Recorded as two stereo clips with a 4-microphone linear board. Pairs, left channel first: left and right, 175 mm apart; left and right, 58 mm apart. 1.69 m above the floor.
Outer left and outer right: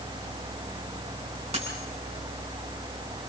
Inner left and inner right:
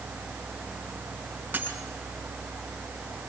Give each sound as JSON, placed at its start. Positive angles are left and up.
{"t": 1.5, "sound": "a dropped coin", "side_deg": -35, "distance_m": 5.5}